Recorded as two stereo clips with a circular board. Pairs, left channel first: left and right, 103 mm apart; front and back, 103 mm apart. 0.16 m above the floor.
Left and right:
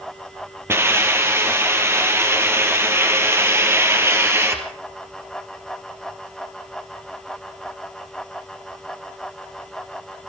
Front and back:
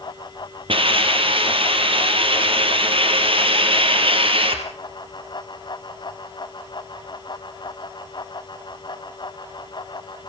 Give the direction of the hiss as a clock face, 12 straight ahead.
5 o'clock.